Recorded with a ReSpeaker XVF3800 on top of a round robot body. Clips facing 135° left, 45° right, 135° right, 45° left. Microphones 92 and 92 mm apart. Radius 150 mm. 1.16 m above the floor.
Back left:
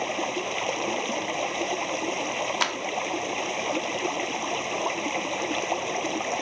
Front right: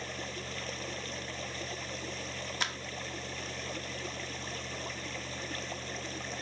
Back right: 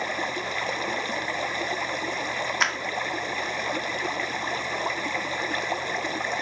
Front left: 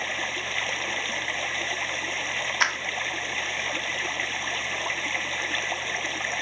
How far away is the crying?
No crying in this recording.